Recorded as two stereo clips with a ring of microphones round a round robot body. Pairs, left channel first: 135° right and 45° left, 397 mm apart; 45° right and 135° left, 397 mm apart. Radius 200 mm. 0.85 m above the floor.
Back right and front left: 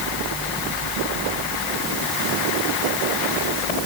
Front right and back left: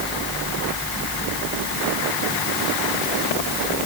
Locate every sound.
Only background noise.